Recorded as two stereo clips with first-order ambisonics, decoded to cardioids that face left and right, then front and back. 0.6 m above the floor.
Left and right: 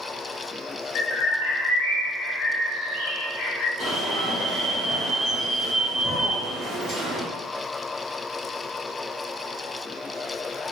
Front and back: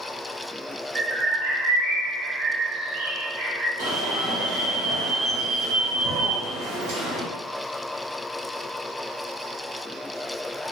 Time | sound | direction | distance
0.9 | a bird | 125° left | 1.2 m
3.8 | an alarm | 175° right | 1.4 m